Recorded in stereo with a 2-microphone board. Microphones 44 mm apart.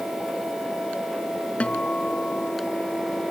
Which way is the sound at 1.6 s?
30° left (ahead or behind).